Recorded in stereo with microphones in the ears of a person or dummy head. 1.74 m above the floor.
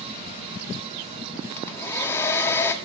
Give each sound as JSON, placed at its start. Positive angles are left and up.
{"t": 1.6, "sound": "a hair dryer", "side_deg": 20, "distance_m": 0.8}